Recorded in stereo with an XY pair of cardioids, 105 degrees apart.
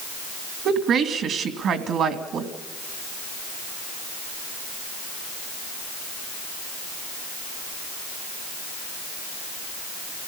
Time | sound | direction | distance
0.7 | a woman speaking | 65° right | 2.5 m